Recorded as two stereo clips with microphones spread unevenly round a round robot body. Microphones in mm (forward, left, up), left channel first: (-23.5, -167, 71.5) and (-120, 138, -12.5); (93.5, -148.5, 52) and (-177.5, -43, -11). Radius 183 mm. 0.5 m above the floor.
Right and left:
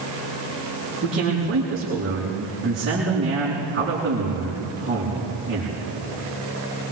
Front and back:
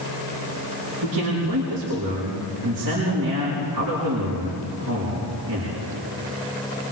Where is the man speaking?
165° left, 7.5 m.